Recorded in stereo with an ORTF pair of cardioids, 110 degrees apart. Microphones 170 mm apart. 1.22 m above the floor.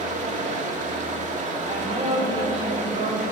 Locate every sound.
0.0 s running water: 45° right, 2 m
1.6 s a woman speaking: 35° right, 6 m